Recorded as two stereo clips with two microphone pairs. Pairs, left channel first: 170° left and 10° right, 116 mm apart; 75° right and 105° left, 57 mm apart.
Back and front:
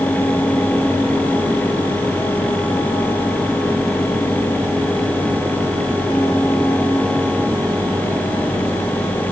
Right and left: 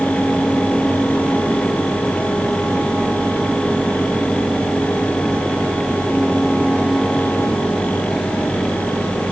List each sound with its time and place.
Only background noise.